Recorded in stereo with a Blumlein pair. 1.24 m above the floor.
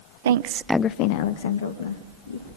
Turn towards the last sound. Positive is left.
turn(degrees=70)